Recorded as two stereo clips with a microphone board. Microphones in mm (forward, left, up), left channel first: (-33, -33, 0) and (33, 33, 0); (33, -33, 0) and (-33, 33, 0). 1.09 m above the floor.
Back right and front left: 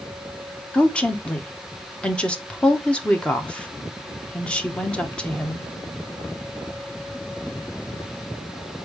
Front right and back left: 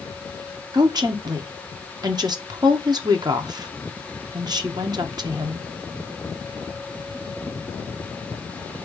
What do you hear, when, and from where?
0.7 s a woman speaking: 150° left, 1.0 m